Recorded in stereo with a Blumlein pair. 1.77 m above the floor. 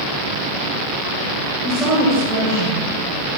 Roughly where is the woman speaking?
Ahead.